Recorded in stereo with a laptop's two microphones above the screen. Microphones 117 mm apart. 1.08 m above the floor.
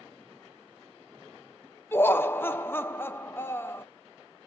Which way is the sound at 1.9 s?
20° left (ahead or behind).